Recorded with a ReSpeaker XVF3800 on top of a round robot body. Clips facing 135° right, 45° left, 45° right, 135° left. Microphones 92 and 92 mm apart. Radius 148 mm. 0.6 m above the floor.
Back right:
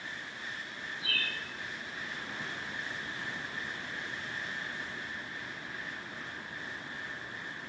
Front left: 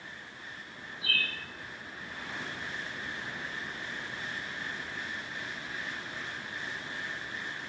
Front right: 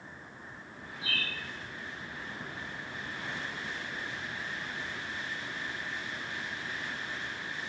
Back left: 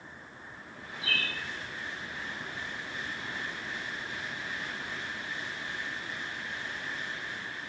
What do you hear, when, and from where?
1.0 s a bird: straight ahead, 0.7 m